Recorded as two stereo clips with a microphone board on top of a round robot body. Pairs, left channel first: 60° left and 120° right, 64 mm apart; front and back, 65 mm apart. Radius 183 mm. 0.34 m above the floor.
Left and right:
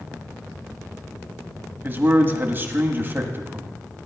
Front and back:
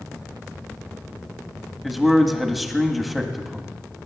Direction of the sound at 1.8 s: 95° right.